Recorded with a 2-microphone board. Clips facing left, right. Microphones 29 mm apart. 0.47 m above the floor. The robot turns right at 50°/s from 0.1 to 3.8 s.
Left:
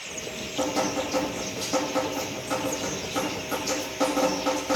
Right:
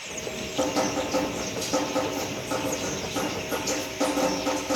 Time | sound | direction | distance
0.1 | dripping | 25° right | 6 m